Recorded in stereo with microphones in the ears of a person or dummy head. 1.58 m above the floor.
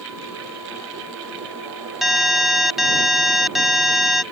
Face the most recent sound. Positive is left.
turn(degrees=-5)  # may be behind; listen again after turning